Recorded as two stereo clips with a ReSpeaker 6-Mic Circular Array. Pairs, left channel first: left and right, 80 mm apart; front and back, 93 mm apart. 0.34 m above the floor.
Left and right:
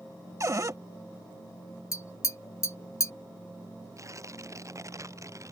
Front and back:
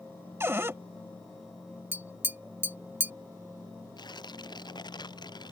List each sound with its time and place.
0.4 s a cupboard door: 125° right
1.9 s tapping: 120° left
4.0 s tearing paper: 40° right